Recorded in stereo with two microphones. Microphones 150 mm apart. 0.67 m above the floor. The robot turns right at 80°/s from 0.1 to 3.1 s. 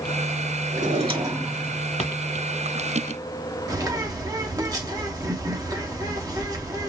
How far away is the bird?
About 1.1 m.